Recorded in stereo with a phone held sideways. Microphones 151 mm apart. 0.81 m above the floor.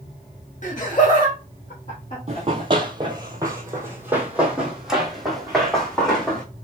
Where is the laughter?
55° left (ahead or behind), 1.3 m; by 3.2 s 30° left (ahead or behind), 2.5 m.